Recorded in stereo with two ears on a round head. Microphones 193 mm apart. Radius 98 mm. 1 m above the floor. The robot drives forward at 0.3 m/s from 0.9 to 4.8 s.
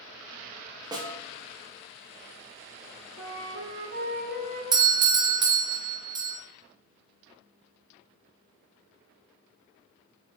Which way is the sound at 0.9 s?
20° right (ahead or behind).